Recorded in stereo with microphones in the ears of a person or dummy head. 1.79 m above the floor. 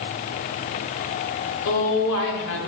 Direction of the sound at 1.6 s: 70° left (ahead or behind).